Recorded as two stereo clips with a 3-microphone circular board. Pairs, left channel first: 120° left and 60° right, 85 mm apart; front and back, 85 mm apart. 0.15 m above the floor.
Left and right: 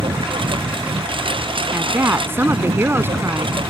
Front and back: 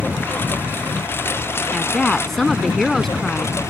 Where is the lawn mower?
70° right; by 3.7 s 60° right.